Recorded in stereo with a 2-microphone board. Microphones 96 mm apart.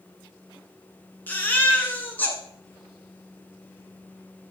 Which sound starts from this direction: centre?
A baby crying, at 1.3 s.